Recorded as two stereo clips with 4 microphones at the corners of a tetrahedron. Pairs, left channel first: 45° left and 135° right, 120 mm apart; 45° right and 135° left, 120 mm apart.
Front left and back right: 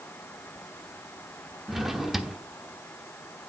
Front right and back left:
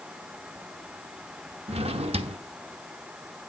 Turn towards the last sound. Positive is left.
turn(degrees=140)